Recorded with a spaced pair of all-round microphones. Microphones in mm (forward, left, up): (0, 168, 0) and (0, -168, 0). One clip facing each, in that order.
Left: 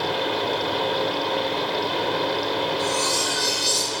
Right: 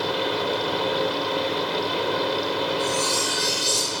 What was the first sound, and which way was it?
A fan, 15° right (ahead or behind).